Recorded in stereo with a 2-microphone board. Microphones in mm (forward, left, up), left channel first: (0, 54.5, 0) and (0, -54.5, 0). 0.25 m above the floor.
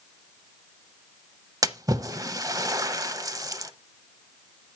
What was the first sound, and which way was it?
A splash, 35° right (ahead or behind).